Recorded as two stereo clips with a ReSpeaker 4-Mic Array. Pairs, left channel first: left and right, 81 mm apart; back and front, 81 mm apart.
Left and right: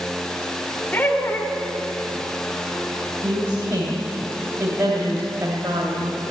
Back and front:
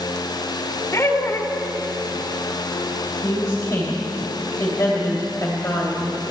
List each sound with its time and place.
0.9 s laughter: 145° left, 1.5 m
3.2 s a woman speaking: 135° right, 2.5 m